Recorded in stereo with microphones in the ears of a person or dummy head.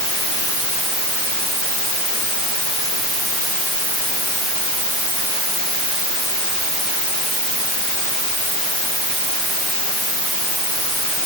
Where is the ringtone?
No ringtone in this recording.